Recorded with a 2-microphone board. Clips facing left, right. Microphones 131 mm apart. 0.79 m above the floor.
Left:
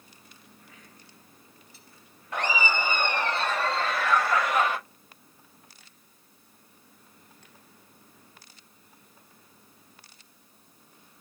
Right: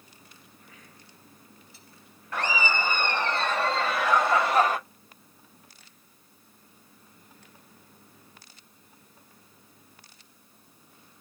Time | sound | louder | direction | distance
2.3 | laughter | even | 20° left (ahead or behind) | 1.7 m